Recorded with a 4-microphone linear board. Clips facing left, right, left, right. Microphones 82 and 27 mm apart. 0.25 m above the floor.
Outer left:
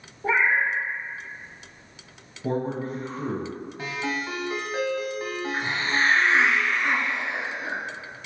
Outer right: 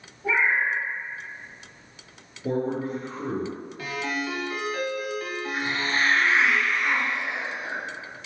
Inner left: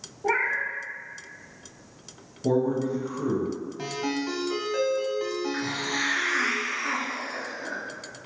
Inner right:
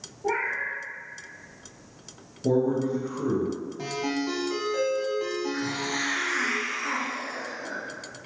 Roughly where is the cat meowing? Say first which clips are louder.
Outer left 1 dB, inner left 2 dB; left.